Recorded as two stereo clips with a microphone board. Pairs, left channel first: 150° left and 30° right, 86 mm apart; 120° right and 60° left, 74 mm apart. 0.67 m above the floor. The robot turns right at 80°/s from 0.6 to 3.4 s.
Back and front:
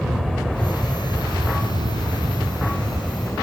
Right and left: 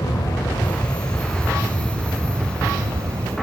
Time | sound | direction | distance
0.0 | an aircraft | 120° right | ?